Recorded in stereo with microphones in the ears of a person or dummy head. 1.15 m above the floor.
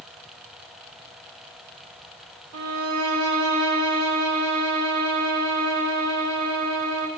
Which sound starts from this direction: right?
A violin, at 2.5 s.